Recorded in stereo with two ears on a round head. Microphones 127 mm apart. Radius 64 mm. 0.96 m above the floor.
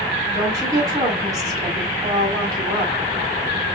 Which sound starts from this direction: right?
A woman speaking, at 0.3 s.